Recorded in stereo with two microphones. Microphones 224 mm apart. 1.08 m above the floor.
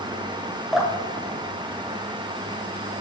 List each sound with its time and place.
0.7 s dripping: centre (ahead or behind), 1.1 m